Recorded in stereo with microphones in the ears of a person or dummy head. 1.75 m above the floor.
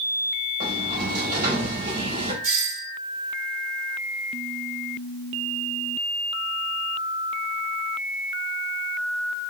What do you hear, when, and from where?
0.6 s a sliding door: 50° right (ahead or behind), 5 m
2.4 s a doorbell: 90° right, 5.5 m